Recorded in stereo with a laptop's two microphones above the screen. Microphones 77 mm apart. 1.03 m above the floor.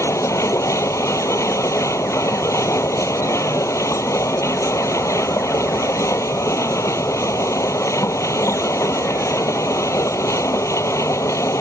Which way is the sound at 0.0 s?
40° left (ahead or behind).